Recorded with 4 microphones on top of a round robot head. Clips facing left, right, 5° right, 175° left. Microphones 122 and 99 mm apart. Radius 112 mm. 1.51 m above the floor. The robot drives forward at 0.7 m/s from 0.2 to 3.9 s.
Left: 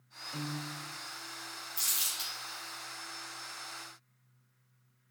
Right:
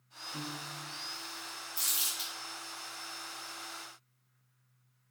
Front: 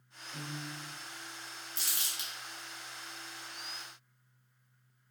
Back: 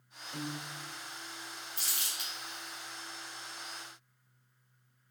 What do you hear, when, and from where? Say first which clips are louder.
0.3 s a piano: left 3 dB, back 2 dB; 120° left, 0.7 m; by 0.8 s 140° left, 0.9 m
1.8 s crumpling: right 1 dB, front 1 dB; 10° right, 1.3 m; by 2.3 s 15° right, 1.0 m